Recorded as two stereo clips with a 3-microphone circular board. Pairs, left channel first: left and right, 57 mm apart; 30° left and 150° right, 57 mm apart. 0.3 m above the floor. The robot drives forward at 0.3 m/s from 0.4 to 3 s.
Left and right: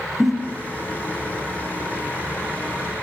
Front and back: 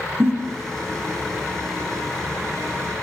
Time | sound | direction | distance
0.2 | a giggle | 170° right | 0.6 m